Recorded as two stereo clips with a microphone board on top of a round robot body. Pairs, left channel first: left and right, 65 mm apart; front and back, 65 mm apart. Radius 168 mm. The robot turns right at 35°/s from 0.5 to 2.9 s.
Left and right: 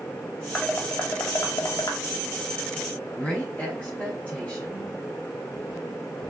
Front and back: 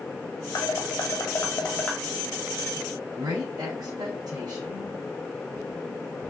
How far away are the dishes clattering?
About 2.5 m.